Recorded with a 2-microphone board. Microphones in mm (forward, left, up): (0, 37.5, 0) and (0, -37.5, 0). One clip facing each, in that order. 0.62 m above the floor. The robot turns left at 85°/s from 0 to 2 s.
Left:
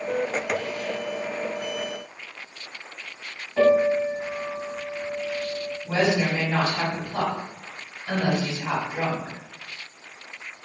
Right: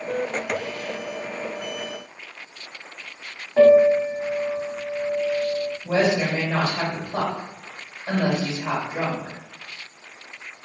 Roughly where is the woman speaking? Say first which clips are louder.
Right 1 dB; right.